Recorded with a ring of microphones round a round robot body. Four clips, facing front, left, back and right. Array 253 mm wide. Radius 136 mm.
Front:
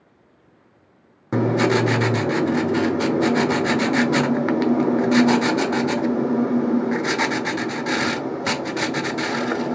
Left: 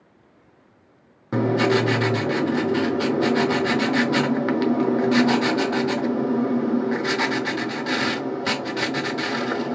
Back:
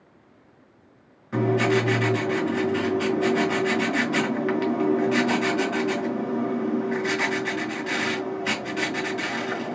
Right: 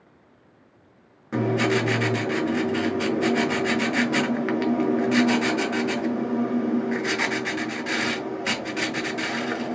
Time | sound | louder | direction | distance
1.3 | writing | left 3 dB, front 3 dB | 25° left | 0.8 m